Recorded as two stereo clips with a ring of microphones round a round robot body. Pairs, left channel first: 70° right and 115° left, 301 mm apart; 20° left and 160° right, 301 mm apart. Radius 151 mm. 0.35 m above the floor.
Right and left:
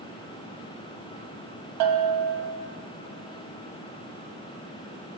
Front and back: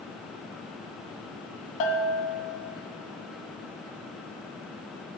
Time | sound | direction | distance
1.8 | a bell | 75° left | 0.5 m